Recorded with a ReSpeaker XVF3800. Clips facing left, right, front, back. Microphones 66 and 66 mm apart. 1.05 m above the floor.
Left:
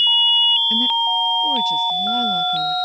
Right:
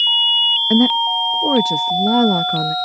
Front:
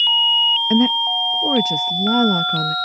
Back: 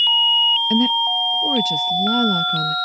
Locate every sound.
0.7 s a woman speaking: 65° right